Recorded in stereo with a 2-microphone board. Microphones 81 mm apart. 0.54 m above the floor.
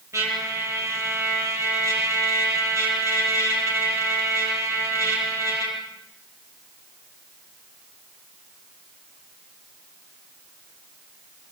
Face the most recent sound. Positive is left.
turn(degrees=-35)  # may be behind; listen again after turning